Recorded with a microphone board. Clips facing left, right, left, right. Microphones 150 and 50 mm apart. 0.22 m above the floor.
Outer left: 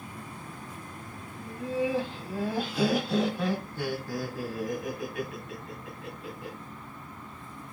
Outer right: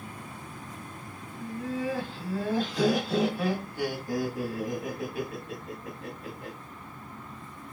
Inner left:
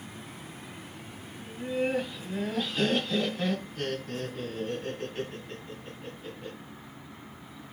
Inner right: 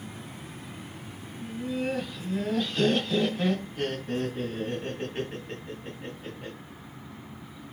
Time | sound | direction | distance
1.4 | laughter | 30° left (ahead or behind) | 1.8 m